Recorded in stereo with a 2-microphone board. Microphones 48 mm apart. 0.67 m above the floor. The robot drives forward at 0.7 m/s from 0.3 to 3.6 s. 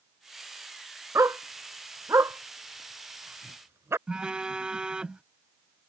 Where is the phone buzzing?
15° right (ahead or behind).